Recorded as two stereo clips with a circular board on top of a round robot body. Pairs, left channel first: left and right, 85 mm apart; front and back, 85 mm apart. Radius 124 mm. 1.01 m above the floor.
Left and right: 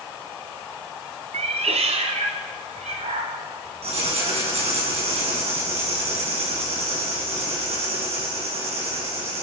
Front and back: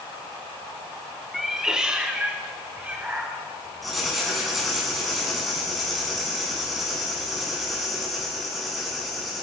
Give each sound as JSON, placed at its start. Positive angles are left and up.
{"t": 1.3, "sound": "a cat meowing", "azimuth_deg": -90, "distance_m": 1.2}
{"t": 3.8, "sound": "writing", "azimuth_deg": -90, "distance_m": 6.0}